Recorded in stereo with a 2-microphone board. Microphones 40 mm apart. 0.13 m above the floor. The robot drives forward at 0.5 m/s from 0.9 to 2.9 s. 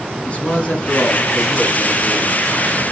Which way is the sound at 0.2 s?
35° left (ahead or behind).